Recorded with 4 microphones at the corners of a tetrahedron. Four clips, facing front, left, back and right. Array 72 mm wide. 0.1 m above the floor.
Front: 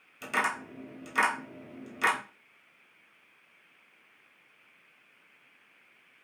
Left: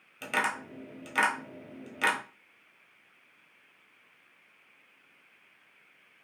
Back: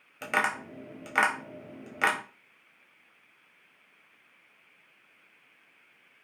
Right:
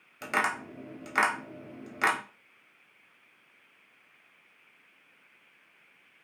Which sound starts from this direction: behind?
Tapping, at 0.2 s.